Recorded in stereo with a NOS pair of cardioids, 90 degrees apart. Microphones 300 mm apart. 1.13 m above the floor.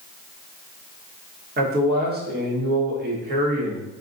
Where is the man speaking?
35° right, 1.1 m.